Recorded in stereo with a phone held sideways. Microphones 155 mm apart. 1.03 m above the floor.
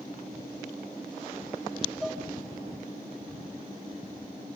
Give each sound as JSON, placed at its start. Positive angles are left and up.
{"t": 2.0, "sound": "dishes clattering", "side_deg": 0, "distance_m": 1.0}